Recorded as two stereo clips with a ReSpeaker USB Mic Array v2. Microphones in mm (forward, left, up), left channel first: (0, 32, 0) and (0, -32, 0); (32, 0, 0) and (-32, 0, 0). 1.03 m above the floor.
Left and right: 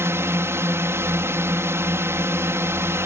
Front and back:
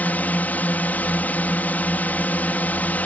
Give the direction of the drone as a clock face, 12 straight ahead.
2 o'clock.